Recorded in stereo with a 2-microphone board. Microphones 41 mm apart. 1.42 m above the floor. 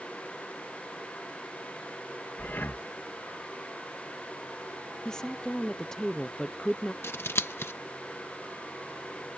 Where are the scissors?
80° left.